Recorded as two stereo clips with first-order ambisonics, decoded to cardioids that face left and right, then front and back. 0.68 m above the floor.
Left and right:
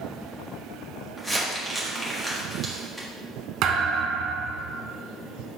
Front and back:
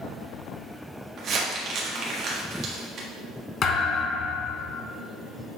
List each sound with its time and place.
1.2 s crumpling: 175° left, 1.3 m
3.6 s a thud: 50° right, 1.2 m